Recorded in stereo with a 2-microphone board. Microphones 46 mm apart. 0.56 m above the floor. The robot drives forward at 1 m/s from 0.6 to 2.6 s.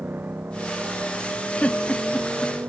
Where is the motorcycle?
40° right (ahead or behind).